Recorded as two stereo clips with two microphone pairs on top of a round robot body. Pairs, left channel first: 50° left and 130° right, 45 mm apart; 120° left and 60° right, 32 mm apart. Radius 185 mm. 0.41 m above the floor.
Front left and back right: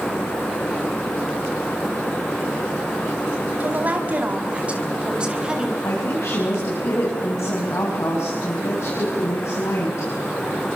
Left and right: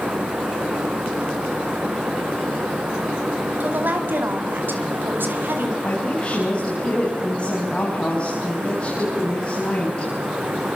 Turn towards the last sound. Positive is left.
turn(degrees=60)